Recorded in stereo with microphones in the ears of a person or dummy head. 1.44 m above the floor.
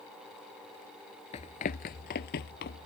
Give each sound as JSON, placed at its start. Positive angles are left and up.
{"t": 1.3, "sound": "running footsteps", "side_deg": 30}